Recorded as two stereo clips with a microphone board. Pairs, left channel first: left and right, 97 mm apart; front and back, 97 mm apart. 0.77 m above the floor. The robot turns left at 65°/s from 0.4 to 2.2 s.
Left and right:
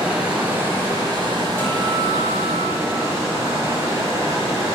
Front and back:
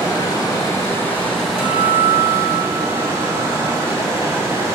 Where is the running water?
15° right, 0.8 m; by 4.8 s 135° right, 0.8 m.